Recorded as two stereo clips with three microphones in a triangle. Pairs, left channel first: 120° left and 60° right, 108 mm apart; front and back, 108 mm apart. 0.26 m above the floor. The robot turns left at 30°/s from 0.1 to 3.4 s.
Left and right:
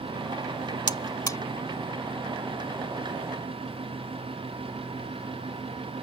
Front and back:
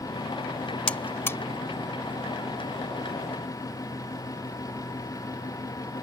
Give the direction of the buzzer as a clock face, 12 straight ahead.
9 o'clock.